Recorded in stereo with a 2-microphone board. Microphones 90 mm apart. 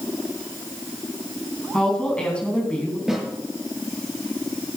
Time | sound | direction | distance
1.7 | a woman speaking | 10° left (ahead or behind) | 3 m
3.1 | a snare drum | 5° right (ahead or behind) | 6.5 m